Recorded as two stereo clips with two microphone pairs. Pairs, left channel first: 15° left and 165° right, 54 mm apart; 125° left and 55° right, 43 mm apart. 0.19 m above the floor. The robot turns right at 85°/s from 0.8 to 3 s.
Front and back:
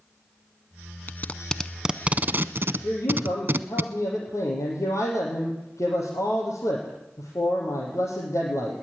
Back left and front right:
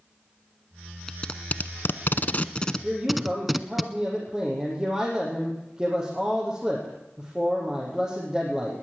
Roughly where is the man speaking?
Ahead.